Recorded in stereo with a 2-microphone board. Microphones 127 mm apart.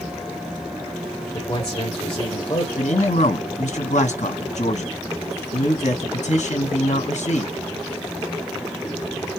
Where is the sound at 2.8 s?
70° left (ahead or behind), 2.5 m.